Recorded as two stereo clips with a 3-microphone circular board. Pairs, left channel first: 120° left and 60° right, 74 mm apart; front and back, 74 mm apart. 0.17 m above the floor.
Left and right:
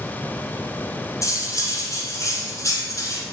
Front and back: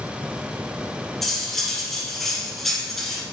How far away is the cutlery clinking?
About 1.1 m.